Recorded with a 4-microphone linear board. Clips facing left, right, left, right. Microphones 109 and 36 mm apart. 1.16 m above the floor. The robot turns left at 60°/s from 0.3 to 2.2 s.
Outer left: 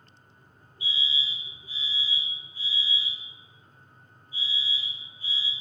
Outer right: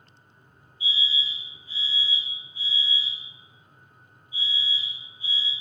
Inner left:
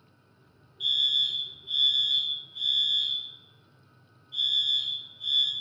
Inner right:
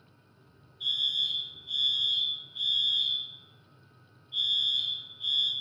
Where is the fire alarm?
65° left, 3 m; by 5.5 s 20° right, 3 m.